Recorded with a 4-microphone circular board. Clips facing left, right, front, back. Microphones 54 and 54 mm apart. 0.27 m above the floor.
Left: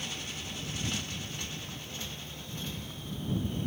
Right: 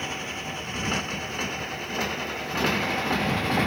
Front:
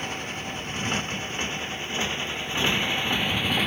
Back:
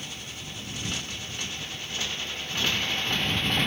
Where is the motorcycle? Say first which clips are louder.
Right 8 dB, front 8 dB; 45° right; by 3.7 s 80° right.